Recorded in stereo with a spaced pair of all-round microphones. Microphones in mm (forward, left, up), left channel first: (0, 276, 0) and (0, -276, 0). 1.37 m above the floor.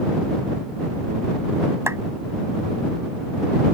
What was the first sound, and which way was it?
A clap, 5° right (ahead or behind).